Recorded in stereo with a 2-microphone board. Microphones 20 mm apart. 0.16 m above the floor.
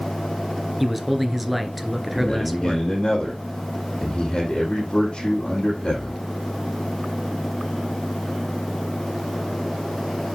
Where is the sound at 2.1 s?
45° left (ahead or behind), 4.5 m.